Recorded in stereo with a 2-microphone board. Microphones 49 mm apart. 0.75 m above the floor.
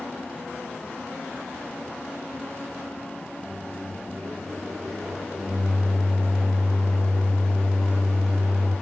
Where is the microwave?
5° right (ahead or behind), 0.9 m.